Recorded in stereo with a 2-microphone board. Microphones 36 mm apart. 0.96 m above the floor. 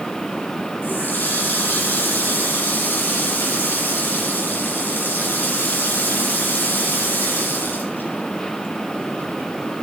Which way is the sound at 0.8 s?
65° left (ahead or behind).